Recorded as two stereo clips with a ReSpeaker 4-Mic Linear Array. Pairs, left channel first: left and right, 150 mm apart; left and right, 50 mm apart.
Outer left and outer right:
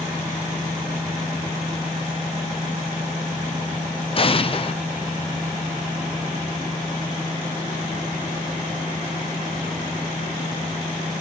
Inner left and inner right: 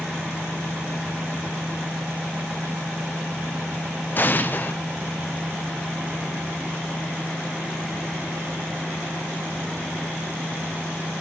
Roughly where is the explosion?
Left.